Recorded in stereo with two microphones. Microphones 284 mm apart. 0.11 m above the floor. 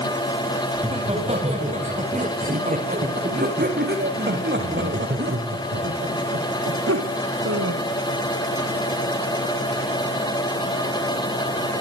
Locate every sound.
0.7 s laughter: 20° right (ahead or behind), 9.5 m; by 7.8 s 65° right (ahead or behind), 6 m